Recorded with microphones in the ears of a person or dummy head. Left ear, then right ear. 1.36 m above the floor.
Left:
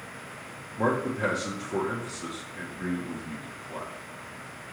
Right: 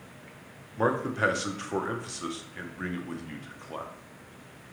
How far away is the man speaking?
About 0.8 m.